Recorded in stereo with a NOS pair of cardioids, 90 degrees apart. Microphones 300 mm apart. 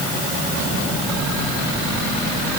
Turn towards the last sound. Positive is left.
No sound to turn to.